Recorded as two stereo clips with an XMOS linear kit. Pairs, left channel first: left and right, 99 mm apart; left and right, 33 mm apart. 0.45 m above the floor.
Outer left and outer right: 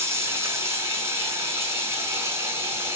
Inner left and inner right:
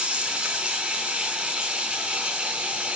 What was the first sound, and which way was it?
Running water, 25° right (ahead or behind).